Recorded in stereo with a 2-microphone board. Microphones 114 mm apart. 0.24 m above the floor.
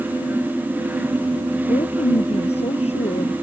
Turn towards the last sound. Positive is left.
turn(degrees=65)  # may be behind; listen again after turning